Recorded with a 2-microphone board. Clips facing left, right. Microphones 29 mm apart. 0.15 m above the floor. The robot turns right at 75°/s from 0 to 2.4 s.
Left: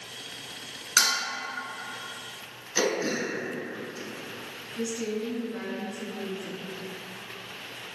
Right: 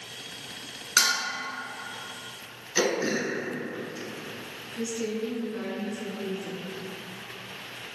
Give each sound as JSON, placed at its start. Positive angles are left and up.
{"t": 1.0, "sound": "dishes clattering", "side_deg": -15, "distance_m": 1.0}
{"t": 2.8, "sound": "throat clearing", "side_deg": -10, "distance_m": 0.7}
{"t": 4.8, "sound": "a woman speaking", "side_deg": 10, "distance_m": 1.2}